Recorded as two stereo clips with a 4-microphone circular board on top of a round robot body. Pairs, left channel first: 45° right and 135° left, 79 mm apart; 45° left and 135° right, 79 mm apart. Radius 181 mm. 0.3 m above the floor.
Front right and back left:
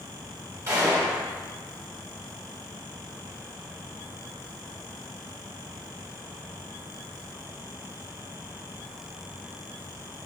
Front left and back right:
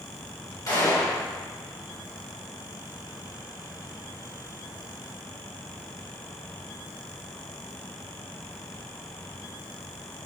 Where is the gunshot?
85° left, 1.3 m.